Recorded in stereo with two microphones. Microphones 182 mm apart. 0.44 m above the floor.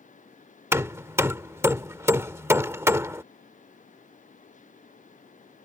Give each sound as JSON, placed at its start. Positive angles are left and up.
{"t": 0.7, "sound": "hammering", "side_deg": -15}